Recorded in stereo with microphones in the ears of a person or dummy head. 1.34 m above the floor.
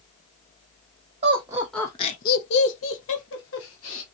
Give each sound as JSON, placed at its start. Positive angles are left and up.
{"t": 1.2, "sound": "laughter", "side_deg": -30, "distance_m": 0.7}